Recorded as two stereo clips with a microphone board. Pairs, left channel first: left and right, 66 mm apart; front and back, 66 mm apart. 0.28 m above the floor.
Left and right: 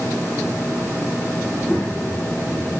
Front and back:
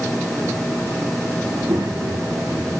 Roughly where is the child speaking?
Behind.